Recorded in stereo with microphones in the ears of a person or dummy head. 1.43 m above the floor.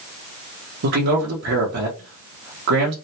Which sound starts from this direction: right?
A man speaking, at 0.8 s.